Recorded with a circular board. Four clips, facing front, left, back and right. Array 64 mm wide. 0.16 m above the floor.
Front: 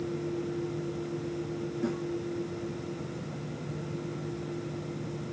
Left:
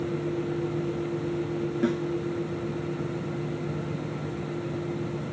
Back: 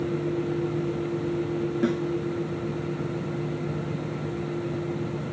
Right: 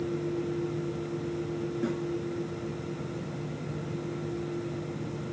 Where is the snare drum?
150° left, 1.0 m.